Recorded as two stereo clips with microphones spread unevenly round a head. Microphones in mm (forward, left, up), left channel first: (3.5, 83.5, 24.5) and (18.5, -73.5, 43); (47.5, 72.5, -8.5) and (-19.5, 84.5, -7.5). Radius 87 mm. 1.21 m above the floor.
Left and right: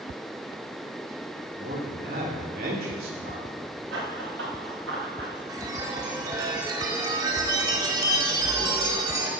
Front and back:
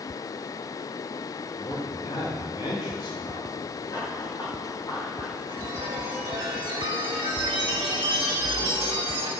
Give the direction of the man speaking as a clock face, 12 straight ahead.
2 o'clock.